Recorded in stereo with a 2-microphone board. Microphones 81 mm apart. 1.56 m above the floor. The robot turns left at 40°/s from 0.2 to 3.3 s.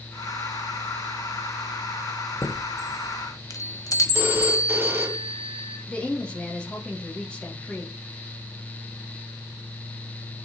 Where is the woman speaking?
10° left (ahead or behind), 1.5 m.